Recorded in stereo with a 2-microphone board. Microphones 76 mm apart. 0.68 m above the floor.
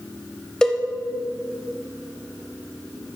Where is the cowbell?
10° left (ahead or behind), 0.7 m.